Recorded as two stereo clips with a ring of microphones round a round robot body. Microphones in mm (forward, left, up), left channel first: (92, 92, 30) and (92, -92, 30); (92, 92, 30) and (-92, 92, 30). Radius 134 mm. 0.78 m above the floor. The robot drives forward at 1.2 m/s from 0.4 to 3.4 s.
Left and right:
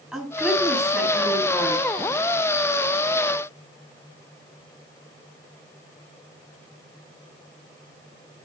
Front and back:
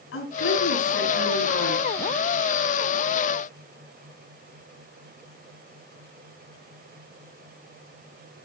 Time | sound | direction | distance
0.1 | a woman speaking | 5° right | 9.5 m